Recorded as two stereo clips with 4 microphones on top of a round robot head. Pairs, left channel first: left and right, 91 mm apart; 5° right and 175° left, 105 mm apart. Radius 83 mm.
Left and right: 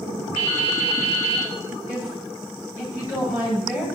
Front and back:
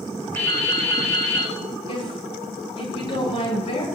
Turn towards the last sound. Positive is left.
turn(degrees=25)